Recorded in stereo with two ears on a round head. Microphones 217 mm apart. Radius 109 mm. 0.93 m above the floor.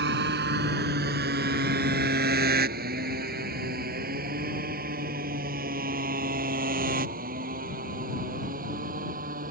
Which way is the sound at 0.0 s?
45° right (ahead or behind).